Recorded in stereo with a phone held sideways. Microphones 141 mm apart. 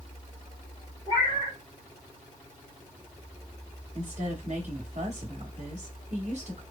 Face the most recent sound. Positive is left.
turn(degrees=-55)  # may be behind; listen again after turning